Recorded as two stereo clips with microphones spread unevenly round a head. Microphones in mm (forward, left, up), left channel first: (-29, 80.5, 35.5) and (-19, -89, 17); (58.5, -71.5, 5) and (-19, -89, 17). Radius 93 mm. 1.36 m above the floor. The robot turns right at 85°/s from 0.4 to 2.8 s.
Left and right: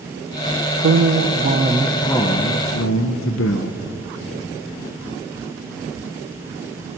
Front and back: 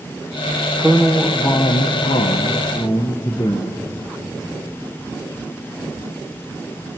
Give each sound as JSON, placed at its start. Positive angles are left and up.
{"t": 0.8, "sound": "a man speaking", "azimuth_deg": -95, "distance_m": 0.9}